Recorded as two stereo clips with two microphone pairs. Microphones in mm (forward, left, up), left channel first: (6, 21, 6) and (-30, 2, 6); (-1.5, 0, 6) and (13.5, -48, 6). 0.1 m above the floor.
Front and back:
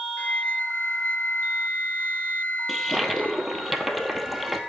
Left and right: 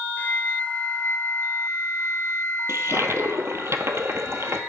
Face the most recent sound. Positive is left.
turn(degrees=-60)